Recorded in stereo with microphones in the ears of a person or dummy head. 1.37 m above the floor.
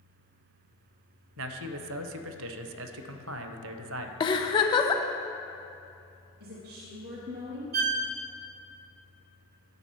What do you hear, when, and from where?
1.4 s a man speaking: 70° right (ahead or behind), 0.6 m
4.2 s a giggle: 25° left (ahead or behind), 0.6 m
6.4 s a woman speaking: 50° right (ahead or behind), 0.9 m
7.7 s a violin: 45° right (ahead or behind), 0.7 m